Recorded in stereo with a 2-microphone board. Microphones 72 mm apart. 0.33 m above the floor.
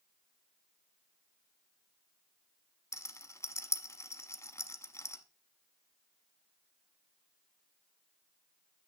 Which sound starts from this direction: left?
A rattle, at 2.9 s.